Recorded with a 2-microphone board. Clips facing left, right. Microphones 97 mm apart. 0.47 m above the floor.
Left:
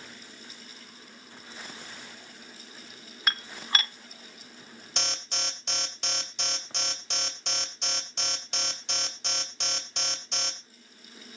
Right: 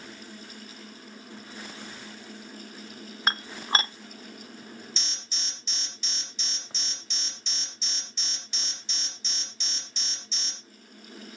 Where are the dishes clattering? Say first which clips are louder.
Right 4 dB; 30° right (ahead or behind), 0.6 m.